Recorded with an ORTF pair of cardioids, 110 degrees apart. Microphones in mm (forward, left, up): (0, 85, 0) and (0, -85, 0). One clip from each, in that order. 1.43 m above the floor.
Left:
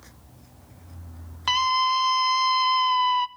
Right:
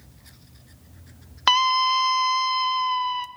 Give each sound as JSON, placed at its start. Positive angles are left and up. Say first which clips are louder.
{"t": 1.5, "sound": "a scream", "louder": "right 3 dB", "azimuth_deg": -50, "distance_m": 1.0}